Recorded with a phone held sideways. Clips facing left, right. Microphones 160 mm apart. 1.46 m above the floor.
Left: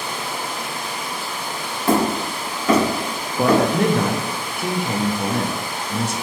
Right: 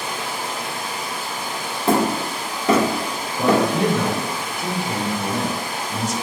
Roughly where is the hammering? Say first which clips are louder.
Even; right.